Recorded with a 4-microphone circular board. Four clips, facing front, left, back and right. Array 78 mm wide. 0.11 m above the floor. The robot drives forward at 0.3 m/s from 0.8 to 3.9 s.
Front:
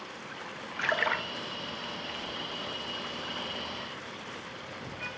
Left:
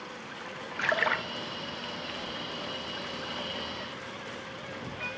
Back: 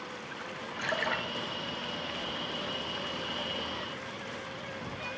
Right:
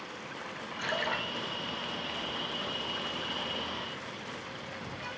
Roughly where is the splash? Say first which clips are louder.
Left 5 dB, front 3 dB; ahead left.